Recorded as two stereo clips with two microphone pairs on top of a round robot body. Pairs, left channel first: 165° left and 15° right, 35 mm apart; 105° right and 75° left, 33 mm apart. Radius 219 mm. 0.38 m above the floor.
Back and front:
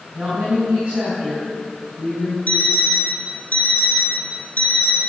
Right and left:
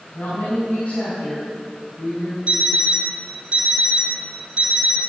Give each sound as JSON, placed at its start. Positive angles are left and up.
{"t": 0.1, "sound": "a woman speaking", "azimuth_deg": -75, "distance_m": 6.0}
{"t": 2.5, "sound": "an alarm clock", "azimuth_deg": 130, "distance_m": 2.5}